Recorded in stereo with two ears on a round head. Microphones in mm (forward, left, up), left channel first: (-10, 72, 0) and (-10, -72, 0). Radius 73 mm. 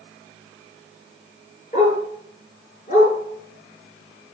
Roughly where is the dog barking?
Left.